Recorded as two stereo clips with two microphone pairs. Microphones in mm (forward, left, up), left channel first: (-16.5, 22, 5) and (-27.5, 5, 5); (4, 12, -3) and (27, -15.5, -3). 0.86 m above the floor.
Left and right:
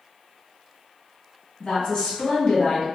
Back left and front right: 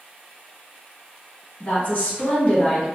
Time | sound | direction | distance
1.6 | a woman speaking | 95° left | 1.3 m